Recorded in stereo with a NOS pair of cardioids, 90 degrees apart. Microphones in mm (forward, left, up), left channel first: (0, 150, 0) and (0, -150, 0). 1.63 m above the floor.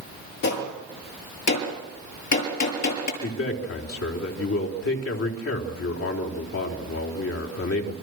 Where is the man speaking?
50° left, 4 m.